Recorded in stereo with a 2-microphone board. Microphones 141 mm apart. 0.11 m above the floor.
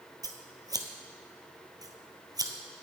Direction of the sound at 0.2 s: 25° right (ahead or behind).